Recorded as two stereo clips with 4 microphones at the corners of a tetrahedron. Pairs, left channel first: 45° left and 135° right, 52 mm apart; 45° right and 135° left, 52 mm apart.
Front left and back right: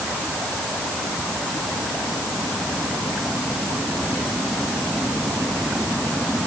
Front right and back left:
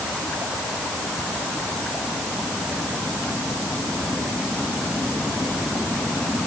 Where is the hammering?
No hammering in this recording.